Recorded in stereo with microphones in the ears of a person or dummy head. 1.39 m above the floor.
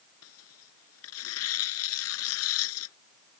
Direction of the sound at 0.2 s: 85° left.